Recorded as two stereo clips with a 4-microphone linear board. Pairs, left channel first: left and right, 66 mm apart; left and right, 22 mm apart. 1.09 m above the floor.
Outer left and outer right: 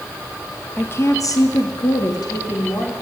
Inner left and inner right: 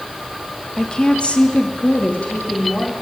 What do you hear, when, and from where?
0.8 s a woman speaking: 25° left (ahead or behind), 1.2 m; by 2.9 s 75° left (ahead or behind), 3 m